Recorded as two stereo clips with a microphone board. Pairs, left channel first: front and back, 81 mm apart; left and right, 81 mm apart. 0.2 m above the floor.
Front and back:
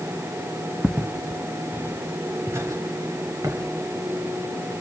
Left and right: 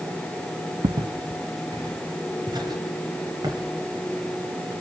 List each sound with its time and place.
0.8 s footsteps: 90° right, 0.7 m; by 4.7 s 130° right, 6.5 m